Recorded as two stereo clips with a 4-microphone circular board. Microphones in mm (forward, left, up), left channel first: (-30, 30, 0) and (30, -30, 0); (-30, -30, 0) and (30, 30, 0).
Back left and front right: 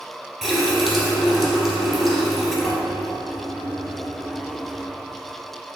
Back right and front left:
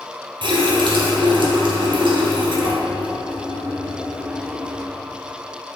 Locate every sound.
0.4 s a running tap: 40° left, 1.9 m